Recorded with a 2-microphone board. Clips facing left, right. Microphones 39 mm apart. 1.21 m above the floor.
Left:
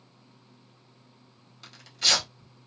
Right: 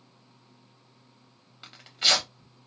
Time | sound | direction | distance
1.6 | tearing paper | 25° right (ahead or behind) | 1.0 m